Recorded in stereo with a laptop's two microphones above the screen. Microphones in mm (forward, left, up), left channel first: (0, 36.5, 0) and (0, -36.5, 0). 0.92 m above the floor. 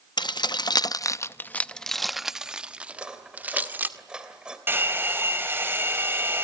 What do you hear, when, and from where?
0.2 s keys jangling: 85° left, 0.8 m; by 3.9 s 25° right (ahead or behind), 1.7 m
2.9 s cutlery clinking: 15° right (ahead or behind), 2.5 m
4.7 s a hair dryer: 30° right (ahead or behind), 5 m